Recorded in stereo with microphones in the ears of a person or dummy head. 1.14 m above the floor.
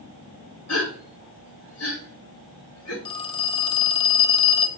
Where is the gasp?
85° left, 3 m.